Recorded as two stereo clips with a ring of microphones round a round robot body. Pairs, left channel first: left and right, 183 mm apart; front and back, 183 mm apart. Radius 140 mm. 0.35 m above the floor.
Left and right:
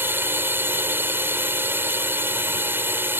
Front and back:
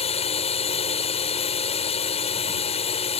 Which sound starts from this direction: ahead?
A drone, at 0.0 s.